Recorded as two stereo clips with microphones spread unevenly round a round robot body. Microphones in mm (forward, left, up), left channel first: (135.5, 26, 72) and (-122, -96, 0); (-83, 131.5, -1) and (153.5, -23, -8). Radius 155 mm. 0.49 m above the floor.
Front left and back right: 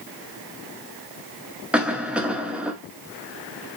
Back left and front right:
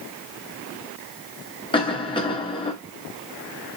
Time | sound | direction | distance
1.7 | a cough | 170° right | 0.7 m